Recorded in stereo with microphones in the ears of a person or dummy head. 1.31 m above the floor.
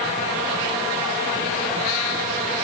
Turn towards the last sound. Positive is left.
No sound to turn to.